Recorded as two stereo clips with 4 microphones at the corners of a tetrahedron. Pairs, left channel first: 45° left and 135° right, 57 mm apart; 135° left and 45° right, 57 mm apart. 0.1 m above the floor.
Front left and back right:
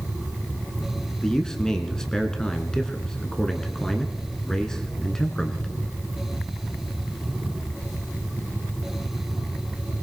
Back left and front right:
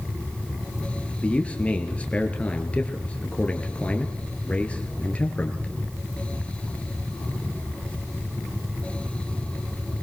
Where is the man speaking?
105° left, 1.2 m.